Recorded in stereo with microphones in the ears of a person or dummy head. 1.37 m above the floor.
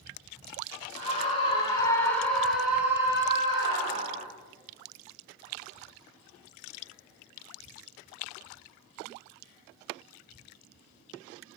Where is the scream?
40° left (ahead or behind), 2.0 m; by 4.3 s 35° right (ahead or behind), 2.5 m.